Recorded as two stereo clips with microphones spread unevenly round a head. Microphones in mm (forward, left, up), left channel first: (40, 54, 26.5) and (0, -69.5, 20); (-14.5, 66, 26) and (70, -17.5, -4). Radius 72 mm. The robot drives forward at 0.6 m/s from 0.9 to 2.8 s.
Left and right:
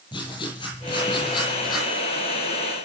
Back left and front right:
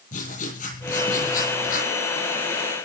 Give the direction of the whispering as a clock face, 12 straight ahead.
No whispering in this recording.